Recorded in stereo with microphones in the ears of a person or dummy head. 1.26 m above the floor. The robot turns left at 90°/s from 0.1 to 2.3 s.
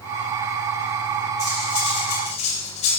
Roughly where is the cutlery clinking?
Behind left.